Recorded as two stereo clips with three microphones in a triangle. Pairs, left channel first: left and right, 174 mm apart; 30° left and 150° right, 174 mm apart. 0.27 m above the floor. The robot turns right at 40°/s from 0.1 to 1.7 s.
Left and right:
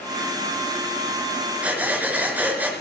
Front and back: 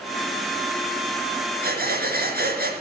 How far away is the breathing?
About 4.5 m.